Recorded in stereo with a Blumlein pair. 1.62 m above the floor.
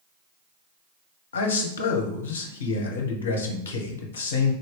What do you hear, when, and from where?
1.3 s a man speaking: 60° left, 0.8 m